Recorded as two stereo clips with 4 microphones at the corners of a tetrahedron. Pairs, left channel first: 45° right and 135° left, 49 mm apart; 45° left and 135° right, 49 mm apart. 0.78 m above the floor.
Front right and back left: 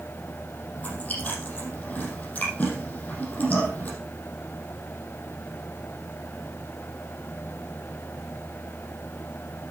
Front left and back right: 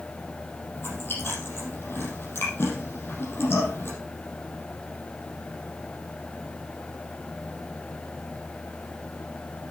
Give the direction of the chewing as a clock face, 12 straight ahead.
12 o'clock.